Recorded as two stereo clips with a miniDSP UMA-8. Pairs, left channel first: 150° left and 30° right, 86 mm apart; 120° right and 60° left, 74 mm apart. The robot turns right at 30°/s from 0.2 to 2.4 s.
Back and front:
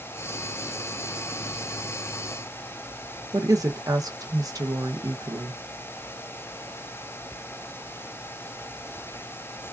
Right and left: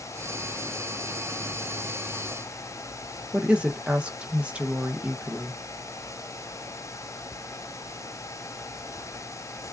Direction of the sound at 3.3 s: 10° right.